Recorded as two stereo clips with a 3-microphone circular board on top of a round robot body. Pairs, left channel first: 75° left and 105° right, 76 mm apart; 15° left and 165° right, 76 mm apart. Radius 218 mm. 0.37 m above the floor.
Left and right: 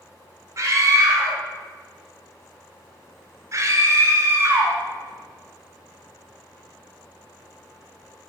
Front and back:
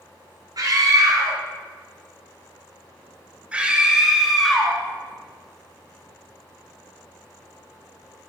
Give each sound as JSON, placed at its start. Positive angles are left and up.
{"t": 0.6, "sound": "a scream", "azimuth_deg": -145, "distance_m": 2.5}